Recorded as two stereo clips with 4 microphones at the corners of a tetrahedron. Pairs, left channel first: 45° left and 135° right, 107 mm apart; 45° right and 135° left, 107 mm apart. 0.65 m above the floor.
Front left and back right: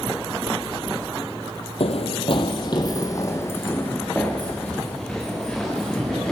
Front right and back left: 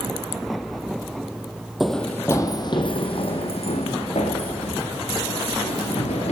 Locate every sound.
1.8 s running footsteps: 45° left, 1.4 m; by 6.3 s 40° right, 6 m